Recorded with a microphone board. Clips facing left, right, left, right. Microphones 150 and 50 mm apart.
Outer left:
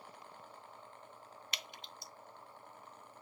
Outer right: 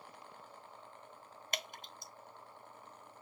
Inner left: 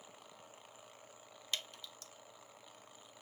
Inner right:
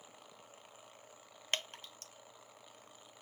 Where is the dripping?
50° right (ahead or behind), 0.5 m.